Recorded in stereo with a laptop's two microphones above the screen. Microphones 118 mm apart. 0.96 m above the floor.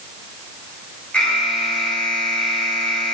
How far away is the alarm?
About 5.5 m.